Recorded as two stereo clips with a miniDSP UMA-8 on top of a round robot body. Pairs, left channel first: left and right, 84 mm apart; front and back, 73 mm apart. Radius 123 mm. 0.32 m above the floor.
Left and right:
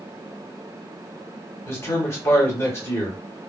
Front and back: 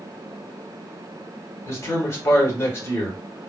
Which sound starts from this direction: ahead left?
A man speaking, at 1.7 s.